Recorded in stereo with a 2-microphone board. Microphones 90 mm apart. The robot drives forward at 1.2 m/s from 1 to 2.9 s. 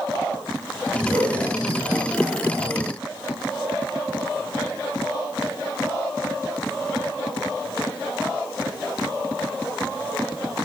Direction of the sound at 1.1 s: 75° right (ahead or behind).